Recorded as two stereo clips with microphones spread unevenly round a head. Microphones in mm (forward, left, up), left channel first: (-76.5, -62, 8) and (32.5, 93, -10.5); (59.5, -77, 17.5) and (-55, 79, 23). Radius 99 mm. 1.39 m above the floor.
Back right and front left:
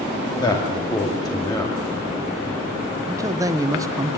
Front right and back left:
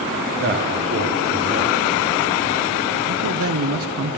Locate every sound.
0.4 s a man speaking: 165° left, 2.5 m
3.1 s a man speaking: 125° left, 1.2 m